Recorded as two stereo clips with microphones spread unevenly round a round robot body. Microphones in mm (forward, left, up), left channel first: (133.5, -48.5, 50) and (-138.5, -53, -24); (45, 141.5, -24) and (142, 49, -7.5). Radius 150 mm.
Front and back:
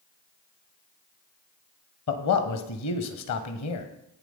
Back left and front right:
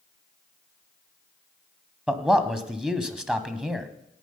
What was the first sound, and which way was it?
A man speaking, 45° left.